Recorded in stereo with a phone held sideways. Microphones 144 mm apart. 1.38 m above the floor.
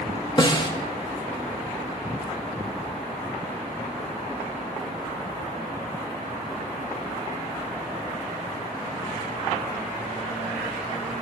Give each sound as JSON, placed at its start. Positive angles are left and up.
{"t": 0.4, "sound": "a snare drum", "side_deg": 35, "distance_m": 1.6}